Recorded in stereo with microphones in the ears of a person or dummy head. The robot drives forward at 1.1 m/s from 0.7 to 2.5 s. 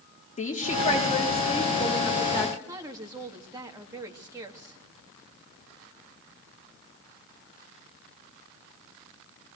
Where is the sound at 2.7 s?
20° right (ahead or behind), 2.5 m.